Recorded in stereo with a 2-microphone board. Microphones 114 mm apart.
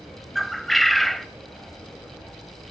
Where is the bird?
Centre (ahead or behind), 0.6 m.